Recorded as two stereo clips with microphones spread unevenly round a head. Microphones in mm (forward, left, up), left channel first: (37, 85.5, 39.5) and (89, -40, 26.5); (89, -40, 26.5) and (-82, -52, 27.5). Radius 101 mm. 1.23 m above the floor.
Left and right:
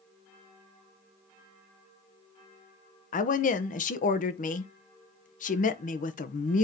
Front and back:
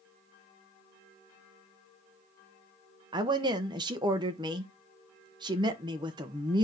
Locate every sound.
3.1 s a woman speaking: 120° left, 0.9 m